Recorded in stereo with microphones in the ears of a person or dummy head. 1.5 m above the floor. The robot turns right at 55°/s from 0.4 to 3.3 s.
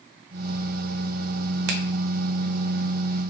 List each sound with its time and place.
1.7 s a finger snap: 60° right (ahead or behind), 0.5 m; by 1.8 s 65° right (ahead or behind), 0.5 m